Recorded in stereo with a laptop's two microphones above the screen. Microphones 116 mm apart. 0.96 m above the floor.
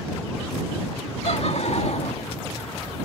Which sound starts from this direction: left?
Laughter, at 1.2 s.